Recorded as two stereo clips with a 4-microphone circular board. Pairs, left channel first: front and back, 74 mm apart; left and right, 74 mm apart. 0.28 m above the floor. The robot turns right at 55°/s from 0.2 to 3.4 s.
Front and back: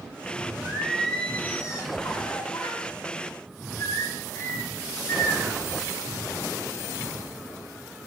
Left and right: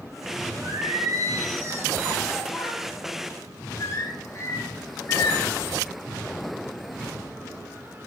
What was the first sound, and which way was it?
Singing, 105° right.